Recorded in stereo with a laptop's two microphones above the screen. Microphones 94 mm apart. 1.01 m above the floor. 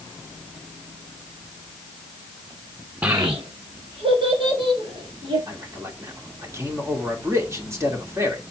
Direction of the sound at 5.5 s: 30° right (ahead or behind).